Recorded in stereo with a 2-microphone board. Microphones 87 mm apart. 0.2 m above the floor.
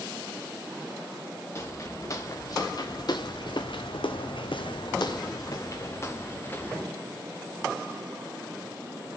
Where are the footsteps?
35° left (ahead or behind), 2 m; by 6.9 s 25° left (ahead or behind), 2.0 m.